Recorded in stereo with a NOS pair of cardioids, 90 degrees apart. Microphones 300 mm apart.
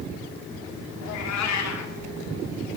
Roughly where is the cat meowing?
Left.